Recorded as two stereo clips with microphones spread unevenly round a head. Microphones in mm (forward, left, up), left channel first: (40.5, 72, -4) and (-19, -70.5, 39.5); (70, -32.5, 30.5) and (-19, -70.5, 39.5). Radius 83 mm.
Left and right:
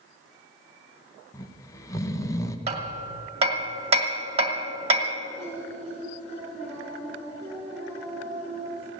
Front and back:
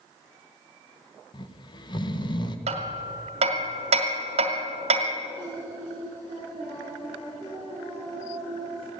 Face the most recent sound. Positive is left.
turn(degrees=10)